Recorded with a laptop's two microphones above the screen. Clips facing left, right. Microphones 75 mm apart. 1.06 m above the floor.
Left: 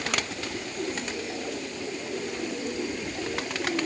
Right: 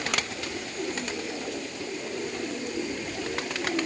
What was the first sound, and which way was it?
Only background noise.